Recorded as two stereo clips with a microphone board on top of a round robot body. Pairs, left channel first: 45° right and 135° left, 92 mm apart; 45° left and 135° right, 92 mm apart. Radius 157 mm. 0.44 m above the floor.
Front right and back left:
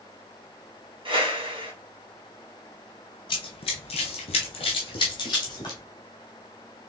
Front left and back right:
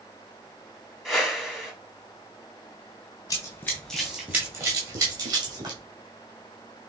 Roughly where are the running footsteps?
Ahead.